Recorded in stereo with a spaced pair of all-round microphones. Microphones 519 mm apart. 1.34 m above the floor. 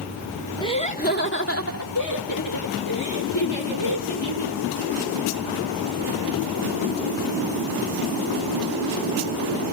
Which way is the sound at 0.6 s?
10° left (ahead or behind).